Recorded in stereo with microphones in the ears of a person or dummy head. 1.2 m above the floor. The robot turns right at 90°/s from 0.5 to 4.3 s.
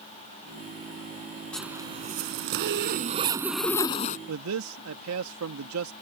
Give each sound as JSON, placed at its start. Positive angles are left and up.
{"t": 1.5, "sound": "a zipper", "azimuth_deg": 175}
{"t": 4.3, "sound": "a man speaking", "side_deg": -75}